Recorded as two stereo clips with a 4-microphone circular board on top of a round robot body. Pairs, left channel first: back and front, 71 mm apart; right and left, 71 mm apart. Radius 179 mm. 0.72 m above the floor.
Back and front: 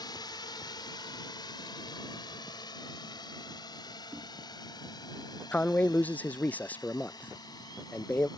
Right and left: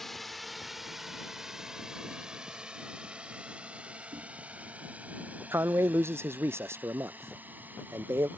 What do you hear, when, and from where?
0.0 s a drone: 175° right; by 8.4 s 155° left
4.1 s knocking: 60° left
5.5 s a man speaking: 125° left